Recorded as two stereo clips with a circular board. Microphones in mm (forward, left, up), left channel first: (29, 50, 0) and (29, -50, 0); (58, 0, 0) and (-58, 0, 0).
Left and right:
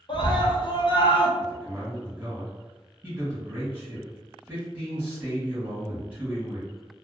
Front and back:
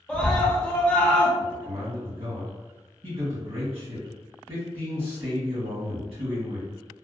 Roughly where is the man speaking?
Behind right.